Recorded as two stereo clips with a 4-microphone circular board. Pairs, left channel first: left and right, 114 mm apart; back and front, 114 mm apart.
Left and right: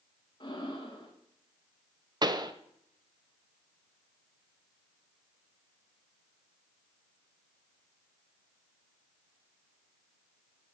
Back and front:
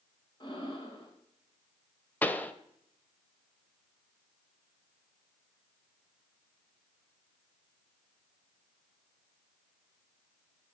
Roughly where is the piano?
I don't hear a piano.